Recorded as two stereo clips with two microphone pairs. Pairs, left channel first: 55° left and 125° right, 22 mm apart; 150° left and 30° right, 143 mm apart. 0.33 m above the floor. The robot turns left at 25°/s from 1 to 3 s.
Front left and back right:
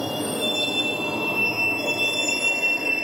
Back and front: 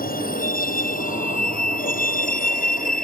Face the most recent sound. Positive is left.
turn(degrees=165)